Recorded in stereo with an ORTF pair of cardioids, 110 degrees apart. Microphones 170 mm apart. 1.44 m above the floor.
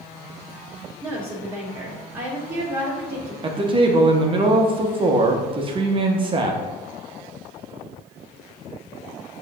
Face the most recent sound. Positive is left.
turn(degrees=-30)